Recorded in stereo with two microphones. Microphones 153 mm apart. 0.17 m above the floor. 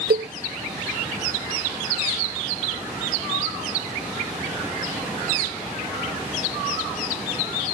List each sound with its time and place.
0.1 s a cowbell: 80° right